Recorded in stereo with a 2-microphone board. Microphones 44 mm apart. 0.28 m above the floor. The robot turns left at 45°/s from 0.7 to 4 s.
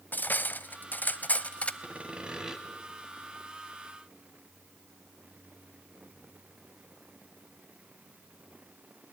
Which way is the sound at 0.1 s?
90° left.